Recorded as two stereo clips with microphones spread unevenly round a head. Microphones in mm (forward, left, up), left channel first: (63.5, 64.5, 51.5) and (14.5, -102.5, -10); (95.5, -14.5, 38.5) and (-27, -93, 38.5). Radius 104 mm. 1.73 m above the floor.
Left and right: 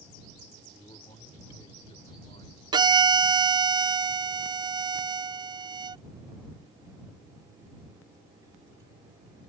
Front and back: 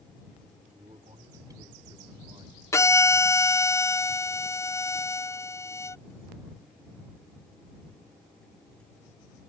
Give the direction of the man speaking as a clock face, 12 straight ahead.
7 o'clock.